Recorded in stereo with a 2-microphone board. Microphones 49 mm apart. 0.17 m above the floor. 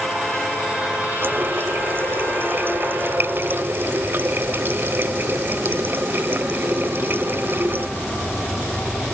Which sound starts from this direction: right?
A running tap, at 1.2 s.